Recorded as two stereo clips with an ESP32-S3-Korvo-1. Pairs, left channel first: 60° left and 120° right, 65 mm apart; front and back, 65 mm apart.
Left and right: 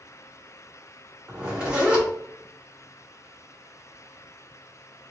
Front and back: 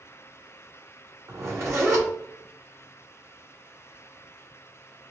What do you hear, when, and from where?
1.3 s a zipper: 170° left, 1.6 m